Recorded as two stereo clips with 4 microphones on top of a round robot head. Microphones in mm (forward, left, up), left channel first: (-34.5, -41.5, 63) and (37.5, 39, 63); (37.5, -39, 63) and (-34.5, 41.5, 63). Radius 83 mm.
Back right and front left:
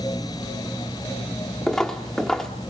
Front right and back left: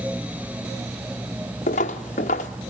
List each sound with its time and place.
1.7 s footsteps: 45° right, 1.1 m